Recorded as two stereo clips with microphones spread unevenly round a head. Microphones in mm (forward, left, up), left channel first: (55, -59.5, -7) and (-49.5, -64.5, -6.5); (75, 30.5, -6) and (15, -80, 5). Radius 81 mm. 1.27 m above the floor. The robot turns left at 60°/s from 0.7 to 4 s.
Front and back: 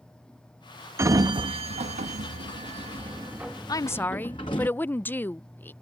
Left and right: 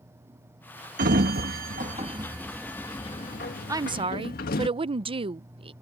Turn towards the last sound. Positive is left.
turn(degrees=-70)